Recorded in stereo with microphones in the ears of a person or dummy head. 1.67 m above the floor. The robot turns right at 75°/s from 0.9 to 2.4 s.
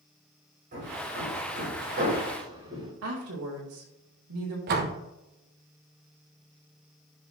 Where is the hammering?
45° right (ahead or behind), 4 m; by 2.9 s 20° right (ahead or behind), 4 m.